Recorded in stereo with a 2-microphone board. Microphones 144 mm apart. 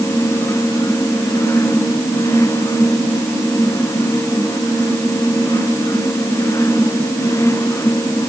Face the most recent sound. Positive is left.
No sound to turn to.